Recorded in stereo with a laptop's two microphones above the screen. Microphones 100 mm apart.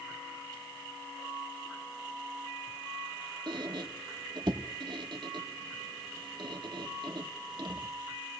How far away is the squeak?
About 1.4 m.